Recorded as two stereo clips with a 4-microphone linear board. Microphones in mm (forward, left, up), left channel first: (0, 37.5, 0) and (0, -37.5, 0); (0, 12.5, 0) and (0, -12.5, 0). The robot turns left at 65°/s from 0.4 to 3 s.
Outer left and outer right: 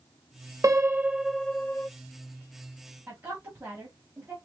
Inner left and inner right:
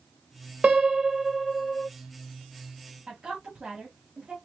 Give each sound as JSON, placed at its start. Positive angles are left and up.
{"t": 0.6, "sound": "a piano", "azimuth_deg": -130, "distance_m": 0.9}
{"t": 3.1, "sound": "a woman speaking", "side_deg": -25, "distance_m": 2.0}